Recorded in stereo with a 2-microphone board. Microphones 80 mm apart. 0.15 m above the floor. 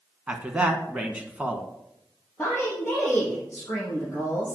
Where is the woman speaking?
10° left (ahead or behind), 3.5 m.